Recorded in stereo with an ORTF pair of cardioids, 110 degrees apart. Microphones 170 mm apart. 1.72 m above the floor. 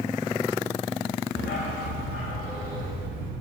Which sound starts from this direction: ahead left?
A dog barking, at 1.4 s.